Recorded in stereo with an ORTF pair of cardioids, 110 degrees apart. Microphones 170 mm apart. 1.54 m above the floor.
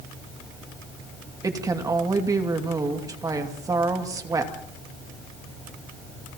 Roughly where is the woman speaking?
Ahead.